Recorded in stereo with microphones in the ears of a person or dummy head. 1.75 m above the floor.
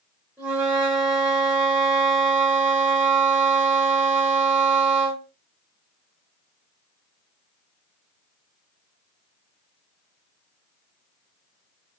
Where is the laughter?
I don't hear laughter.